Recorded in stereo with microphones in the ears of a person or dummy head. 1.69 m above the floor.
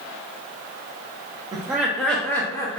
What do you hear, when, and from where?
1.5 s laughter: 15° right (ahead or behind), 0.5 m; by 2.8 s 15° left (ahead or behind), 0.9 m